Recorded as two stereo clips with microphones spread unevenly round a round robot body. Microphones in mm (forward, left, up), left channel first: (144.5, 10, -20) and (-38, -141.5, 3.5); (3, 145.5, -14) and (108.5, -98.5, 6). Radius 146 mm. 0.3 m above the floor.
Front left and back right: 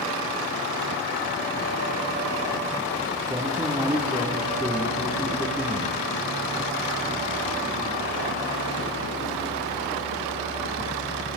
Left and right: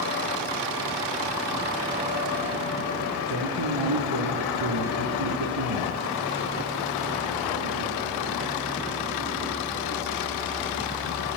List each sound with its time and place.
3.3 s a man speaking: 65° right, 6.5 m